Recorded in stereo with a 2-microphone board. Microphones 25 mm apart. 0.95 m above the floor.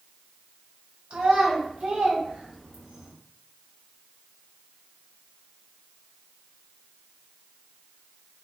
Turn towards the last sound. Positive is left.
turn(degrees=-25)  # may be behind; listen again after turning